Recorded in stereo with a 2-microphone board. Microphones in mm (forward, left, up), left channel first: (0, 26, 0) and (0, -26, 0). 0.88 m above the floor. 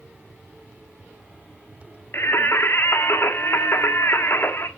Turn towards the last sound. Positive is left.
turn(degrees=50)  # may be behind; listen again after turning